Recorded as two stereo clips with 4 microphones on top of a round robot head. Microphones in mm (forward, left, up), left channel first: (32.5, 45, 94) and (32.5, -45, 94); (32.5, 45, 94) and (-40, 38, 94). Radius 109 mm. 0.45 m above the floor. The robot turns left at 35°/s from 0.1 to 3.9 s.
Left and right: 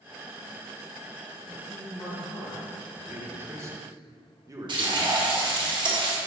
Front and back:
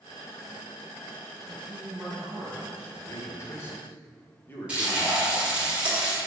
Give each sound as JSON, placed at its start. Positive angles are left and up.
{"t": 1.4, "sound": "a man speaking", "azimuth_deg": 135, "distance_m": 3.0}
{"t": 2.9, "sound": "a man speaking", "azimuth_deg": -15, "distance_m": 1.7}
{"t": 4.7, "sound": "frying", "azimuth_deg": -100, "distance_m": 2.5}